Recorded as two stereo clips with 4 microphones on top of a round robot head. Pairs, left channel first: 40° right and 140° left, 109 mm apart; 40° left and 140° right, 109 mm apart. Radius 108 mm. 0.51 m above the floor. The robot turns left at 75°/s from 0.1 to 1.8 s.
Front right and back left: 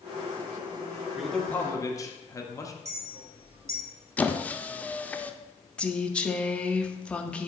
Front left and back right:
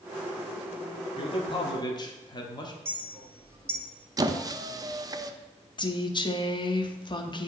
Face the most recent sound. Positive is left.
turn(degrees=35)